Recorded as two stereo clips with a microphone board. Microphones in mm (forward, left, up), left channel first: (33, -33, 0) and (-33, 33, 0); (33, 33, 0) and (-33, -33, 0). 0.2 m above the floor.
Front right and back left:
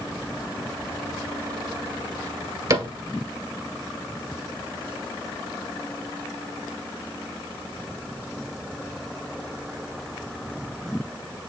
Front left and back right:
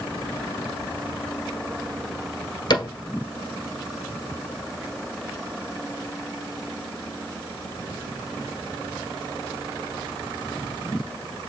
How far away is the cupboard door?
About 1.8 m.